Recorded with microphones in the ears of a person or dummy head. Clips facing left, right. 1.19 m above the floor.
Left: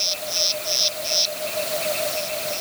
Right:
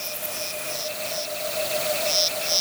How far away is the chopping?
I don't hear chopping.